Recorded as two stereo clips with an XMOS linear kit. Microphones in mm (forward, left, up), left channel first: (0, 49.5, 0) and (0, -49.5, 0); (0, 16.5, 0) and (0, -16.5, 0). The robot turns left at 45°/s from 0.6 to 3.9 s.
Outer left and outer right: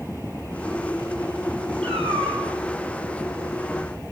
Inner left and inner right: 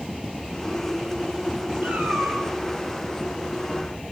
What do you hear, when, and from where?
1.8 s a cat meowing: 70° right (ahead or behind), 7 m; by 2.4 s 80° right, 7 m